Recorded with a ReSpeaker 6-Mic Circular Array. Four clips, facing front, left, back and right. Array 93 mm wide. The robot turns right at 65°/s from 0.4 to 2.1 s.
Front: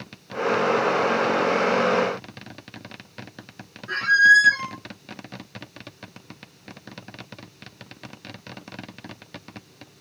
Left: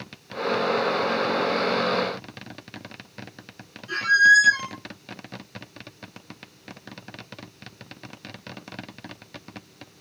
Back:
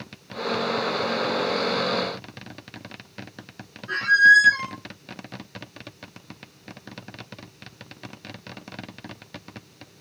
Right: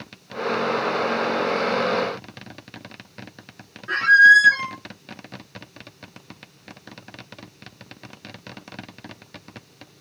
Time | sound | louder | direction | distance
3.9 | a squeak | right 5 dB, even | 85° right | 0.8 m